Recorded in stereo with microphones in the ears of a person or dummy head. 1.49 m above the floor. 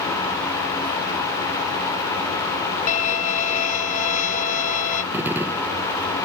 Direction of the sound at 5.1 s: 5° right (ahead or behind).